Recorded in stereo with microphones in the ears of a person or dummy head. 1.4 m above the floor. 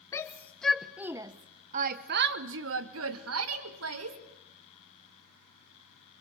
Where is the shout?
15° left (ahead or behind), 1.1 m; by 4.2 s 80° right, 1.8 m.